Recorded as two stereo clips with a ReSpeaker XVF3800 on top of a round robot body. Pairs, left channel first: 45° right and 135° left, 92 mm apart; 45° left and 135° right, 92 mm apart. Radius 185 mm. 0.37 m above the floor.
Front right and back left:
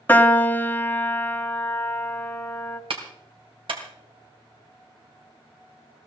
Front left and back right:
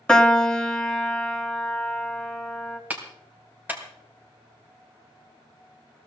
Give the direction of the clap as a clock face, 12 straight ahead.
7 o'clock.